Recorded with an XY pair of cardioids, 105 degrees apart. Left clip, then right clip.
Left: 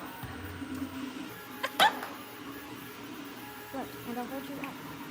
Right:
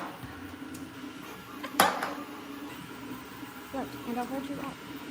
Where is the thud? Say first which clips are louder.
Left 1 dB; 20° left, 6 m.